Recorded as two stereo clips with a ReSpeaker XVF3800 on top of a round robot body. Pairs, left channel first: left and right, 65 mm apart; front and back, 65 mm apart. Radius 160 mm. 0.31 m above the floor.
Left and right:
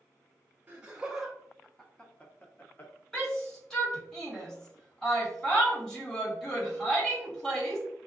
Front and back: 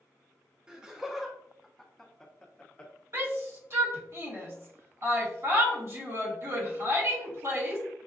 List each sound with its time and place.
0.7 s laughter: 120° right, 1.1 m; by 2.9 s 60° left, 1.2 m
3.1 s a shout: 165° left, 1.7 m